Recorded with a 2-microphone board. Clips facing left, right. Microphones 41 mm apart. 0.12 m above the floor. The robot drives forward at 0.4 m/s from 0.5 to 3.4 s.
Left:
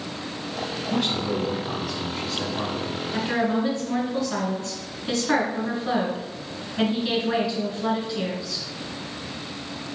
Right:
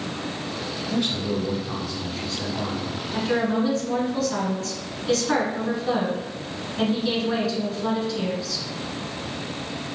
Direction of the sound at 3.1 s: 20° left (ahead or behind).